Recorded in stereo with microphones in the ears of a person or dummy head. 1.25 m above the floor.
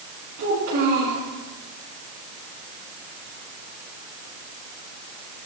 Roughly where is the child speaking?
Right.